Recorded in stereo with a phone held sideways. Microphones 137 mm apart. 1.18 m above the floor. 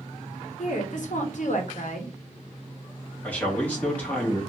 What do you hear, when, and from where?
0.6 s a woman speaking: 65° left (ahead or behind), 1.2 m
3.2 s a man speaking: 10° left (ahead or behind), 2 m